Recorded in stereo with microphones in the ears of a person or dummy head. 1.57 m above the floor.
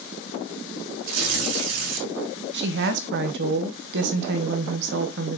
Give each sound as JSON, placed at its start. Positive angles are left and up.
{"t": 1.0, "sound": "tearing paper", "side_deg": -85, "distance_m": 2.5}
{"t": 2.5, "sound": "a woman speaking", "side_deg": -60, "distance_m": 1.1}